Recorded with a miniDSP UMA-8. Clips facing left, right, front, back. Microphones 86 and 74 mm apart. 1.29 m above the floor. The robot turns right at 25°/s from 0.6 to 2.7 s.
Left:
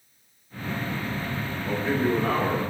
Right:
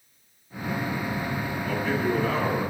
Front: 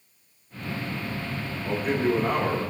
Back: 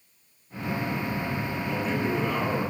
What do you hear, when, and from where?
1.6 s a man speaking: 20° left, 3 m; by 2.6 s 45° left, 3 m